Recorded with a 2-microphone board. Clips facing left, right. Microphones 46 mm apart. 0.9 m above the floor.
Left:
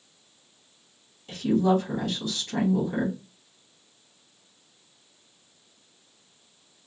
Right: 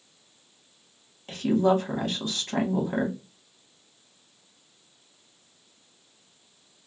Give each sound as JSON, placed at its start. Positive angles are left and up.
{"t": 1.3, "sound": "a woman speaking", "side_deg": -50, "distance_m": 2.5}